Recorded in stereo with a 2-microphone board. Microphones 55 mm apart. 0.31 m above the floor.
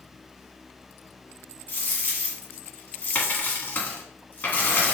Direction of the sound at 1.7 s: 35° left (ahead or behind).